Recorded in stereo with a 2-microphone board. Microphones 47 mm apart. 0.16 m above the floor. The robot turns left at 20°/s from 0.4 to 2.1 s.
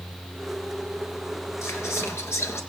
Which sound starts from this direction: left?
Whispering, at 1.6 s.